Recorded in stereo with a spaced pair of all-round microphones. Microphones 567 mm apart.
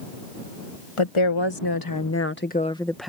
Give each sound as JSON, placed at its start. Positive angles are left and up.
{"t": 1.0, "sound": "a woman speaking", "side_deg": 60}